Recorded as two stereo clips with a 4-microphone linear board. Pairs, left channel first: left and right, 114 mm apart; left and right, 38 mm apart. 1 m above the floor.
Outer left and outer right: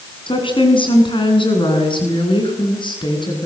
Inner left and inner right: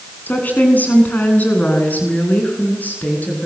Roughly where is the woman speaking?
Left.